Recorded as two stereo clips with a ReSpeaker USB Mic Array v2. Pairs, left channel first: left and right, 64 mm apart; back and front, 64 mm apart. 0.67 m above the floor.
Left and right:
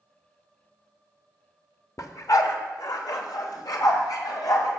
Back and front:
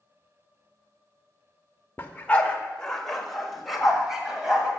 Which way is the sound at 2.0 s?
125° left.